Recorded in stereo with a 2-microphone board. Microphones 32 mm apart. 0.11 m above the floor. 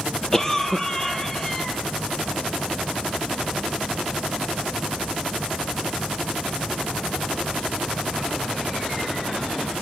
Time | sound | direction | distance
0.3 | a cough | 15° left (ahead or behind) | 3 m